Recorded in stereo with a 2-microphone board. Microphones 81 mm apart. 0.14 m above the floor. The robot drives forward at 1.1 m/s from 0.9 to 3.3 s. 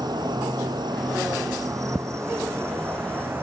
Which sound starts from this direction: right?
An insect, at 0.0 s.